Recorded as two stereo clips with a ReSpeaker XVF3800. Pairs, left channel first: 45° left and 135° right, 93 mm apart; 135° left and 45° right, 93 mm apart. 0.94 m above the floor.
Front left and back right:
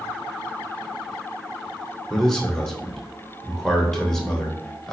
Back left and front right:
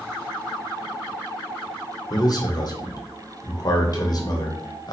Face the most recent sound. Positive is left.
turn(degrees=130)